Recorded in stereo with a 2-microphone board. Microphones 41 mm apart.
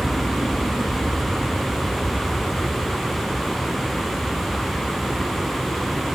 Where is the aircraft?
50° right (ahead or behind); by 6.2 s 75° right (ahead or behind).